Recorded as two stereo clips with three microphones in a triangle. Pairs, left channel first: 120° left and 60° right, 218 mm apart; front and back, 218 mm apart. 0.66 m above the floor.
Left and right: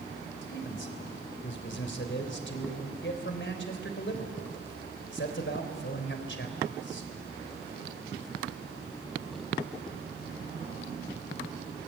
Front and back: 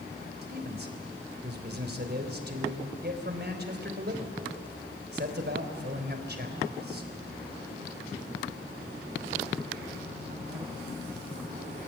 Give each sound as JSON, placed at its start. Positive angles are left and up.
{"t": 0.4, "sound": "a man speaking", "azimuth_deg": 145, "distance_m": 3.5}